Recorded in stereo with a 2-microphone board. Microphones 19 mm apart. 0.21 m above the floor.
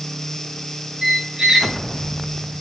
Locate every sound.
1.0 s a squeak: 35° right (ahead or behind), 1.4 m